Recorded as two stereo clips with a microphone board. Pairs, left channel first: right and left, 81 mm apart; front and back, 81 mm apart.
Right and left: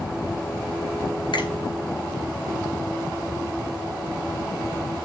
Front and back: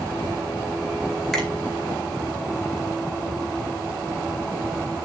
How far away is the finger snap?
About 4 m.